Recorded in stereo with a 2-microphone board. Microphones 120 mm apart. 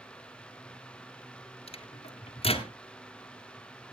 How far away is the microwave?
About 1.6 m.